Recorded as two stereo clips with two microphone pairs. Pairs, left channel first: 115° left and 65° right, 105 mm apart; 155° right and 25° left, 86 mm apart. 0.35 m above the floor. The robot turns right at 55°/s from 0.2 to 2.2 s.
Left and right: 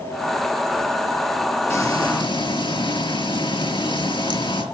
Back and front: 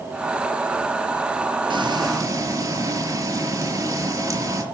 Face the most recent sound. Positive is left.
turn(degrees=75)